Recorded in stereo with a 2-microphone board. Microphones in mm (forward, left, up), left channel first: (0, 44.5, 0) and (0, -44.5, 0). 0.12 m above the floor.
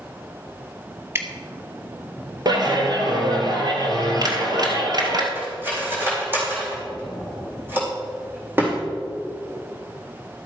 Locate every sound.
1.1 s dripping: 25° right (ahead or behind), 0.8 m
2.5 s a clap: 50° right (ahead or behind), 1.8 m
5.3 s cutlery clinking: 25° right (ahead or behind), 4 m